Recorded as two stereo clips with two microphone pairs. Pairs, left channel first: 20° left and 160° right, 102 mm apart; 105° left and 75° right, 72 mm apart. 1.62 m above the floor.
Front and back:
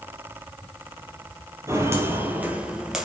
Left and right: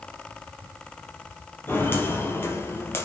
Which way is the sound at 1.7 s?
150° left.